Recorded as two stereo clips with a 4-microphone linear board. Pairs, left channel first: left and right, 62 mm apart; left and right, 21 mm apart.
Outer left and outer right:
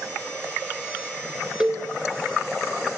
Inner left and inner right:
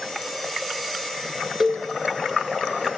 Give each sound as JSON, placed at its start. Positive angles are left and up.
{"t": 1.6, "sound": "a cowbell", "side_deg": -15, "distance_m": 1.5}